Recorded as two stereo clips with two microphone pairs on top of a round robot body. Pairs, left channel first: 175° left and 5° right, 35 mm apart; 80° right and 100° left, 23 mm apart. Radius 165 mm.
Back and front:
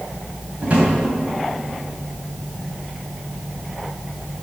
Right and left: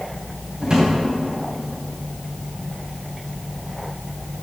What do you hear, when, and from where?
0.6 s a drawer: 40° left, 2 m